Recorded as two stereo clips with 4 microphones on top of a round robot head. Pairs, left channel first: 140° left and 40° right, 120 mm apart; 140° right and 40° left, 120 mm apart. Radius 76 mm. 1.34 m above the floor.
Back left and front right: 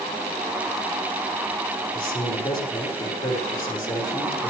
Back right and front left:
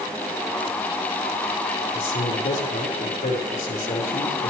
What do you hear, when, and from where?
1.9 s a man speaking: 170° right, 5 m